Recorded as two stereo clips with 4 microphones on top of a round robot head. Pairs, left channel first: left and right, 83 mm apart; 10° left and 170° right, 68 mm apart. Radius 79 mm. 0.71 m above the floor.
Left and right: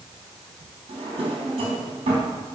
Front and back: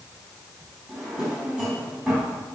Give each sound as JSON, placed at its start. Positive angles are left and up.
{"t": 0.9, "sound": "a drawer", "azimuth_deg": -90, "distance_m": 4.0}